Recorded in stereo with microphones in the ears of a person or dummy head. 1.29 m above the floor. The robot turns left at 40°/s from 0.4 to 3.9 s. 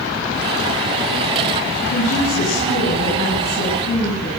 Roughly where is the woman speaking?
Behind left.